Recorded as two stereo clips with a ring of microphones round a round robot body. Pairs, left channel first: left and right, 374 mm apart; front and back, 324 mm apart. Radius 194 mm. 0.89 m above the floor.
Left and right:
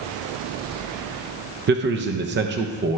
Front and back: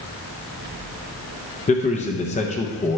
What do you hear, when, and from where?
1.7 s a man speaking: 55° right, 0.5 m